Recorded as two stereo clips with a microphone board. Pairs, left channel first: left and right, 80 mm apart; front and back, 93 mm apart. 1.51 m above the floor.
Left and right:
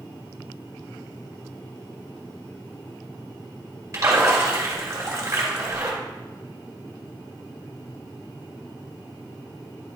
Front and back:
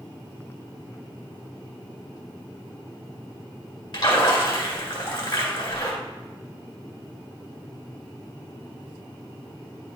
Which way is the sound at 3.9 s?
35° right.